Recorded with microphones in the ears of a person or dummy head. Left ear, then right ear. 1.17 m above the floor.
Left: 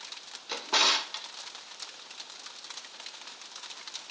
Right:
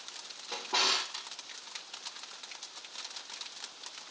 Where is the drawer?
75° left (ahead or behind), 1.3 m.